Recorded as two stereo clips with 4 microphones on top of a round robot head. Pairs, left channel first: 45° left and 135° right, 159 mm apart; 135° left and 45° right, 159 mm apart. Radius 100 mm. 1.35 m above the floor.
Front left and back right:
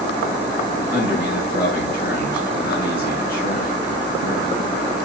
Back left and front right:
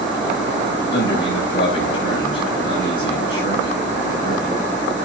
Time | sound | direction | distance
0.9 | a man speaking | 70° left | 9 m